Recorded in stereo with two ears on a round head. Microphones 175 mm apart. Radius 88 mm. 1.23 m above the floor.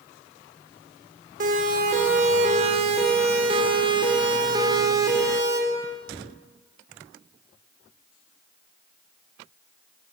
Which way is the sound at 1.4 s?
45° right (ahead or behind).